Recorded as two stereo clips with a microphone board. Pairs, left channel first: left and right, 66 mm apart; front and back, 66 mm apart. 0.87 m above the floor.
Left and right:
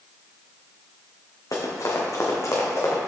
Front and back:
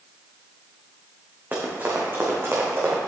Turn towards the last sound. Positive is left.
turn(degrees=135)